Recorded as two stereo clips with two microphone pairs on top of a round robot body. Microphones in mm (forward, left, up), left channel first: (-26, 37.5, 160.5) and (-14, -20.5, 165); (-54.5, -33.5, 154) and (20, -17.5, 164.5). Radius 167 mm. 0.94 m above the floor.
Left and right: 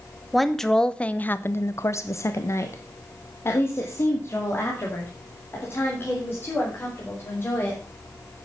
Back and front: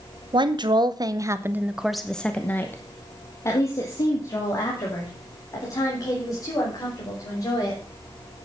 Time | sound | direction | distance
0.3 | a woman speaking | 15° left | 1.2 m